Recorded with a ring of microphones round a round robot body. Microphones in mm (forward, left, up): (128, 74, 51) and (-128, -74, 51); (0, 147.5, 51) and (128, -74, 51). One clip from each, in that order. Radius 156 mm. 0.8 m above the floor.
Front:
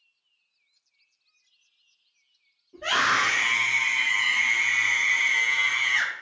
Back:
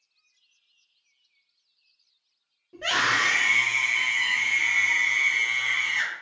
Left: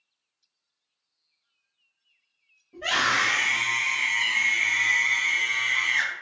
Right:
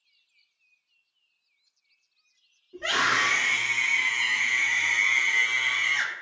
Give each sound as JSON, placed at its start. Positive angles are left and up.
{"t": 2.7, "sound": "a scream", "azimuth_deg": -145, "distance_m": 1.1}